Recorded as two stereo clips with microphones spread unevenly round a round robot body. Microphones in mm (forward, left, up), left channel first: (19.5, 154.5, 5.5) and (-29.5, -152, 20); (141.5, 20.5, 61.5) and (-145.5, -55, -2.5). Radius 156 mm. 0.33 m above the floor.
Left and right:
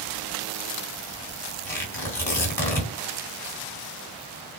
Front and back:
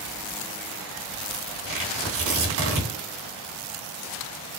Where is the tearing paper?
165° left, 3 m.